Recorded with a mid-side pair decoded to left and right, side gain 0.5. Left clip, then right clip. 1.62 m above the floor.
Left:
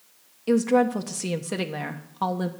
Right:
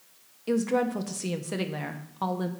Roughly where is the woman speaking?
Ahead.